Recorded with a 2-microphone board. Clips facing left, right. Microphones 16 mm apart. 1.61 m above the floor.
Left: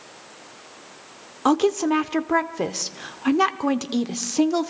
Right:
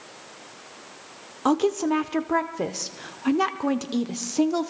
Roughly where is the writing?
I don't hear writing.